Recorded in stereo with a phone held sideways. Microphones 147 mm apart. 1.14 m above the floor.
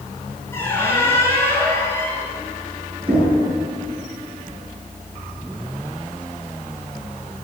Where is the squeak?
15° left (ahead or behind), 4.5 m.